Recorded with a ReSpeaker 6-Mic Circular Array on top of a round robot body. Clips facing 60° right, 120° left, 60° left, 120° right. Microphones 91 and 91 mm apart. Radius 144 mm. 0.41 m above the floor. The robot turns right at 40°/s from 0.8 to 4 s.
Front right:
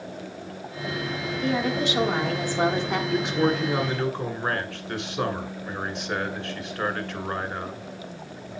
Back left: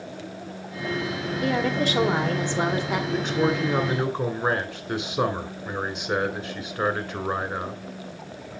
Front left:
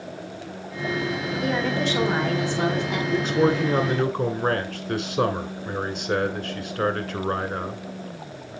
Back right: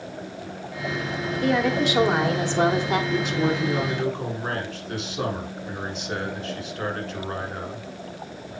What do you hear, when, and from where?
1.4 s a woman speaking: 140° left, 1.8 m; by 3.0 s 155° right, 1.8 m
3.1 s a man speaking: 25° left, 1.9 m; by 7.8 s 60° left, 1.9 m